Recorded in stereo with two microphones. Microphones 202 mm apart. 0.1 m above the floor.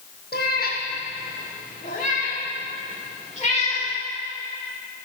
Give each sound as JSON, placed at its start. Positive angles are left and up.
{"t": 0.3, "sound": "a cat meowing", "side_deg": 60, "distance_m": 2.5}